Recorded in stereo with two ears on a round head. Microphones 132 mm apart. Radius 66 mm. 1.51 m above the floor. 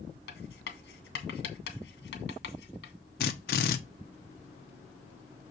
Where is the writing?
80° left, 2 m.